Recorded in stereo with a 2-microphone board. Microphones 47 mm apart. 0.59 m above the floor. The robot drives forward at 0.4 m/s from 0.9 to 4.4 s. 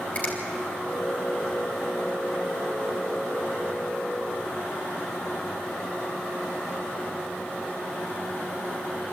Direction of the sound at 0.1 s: 35° left (ahead or behind).